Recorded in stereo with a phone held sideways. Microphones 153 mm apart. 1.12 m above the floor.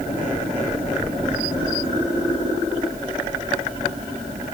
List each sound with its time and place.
Only background noise.